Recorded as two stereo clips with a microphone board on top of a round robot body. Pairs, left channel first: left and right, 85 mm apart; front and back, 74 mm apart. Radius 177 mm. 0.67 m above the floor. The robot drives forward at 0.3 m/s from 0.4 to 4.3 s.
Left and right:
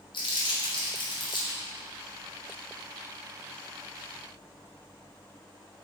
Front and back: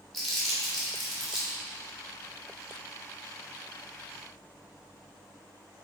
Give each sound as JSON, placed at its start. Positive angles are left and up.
{"t": 0.1, "sound": "crumpling", "azimuth_deg": 90, "distance_m": 1.9}